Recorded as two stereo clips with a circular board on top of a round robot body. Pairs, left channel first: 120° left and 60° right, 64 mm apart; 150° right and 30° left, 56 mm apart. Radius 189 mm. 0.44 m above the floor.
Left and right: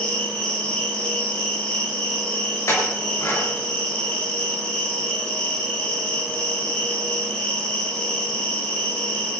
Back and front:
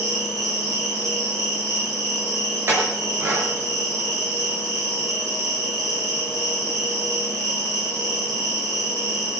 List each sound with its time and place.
0.0 s an insect: 50° left, 5.5 m
2.7 s a clink: 75° left, 5.5 m